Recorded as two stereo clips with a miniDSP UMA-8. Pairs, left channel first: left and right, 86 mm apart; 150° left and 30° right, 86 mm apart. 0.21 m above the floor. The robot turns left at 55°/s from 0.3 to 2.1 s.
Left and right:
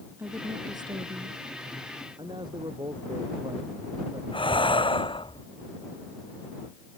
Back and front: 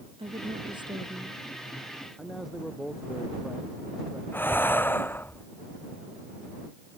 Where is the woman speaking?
25° right; by 1.4 s 90° right.